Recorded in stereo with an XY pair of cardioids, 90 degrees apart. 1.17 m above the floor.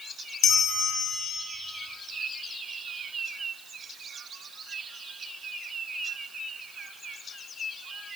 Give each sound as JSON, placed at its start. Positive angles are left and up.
{"t": 0.4, "sound": "a bell", "azimuth_deg": 65, "distance_m": 0.8}